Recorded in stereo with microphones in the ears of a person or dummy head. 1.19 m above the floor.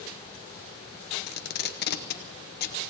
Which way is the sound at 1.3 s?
50° left (ahead or behind).